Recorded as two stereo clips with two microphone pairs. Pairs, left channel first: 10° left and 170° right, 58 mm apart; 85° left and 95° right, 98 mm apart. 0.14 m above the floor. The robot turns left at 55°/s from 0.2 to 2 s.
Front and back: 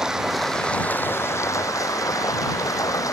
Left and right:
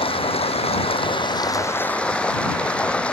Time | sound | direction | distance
0.0 | running water | 105° left | ?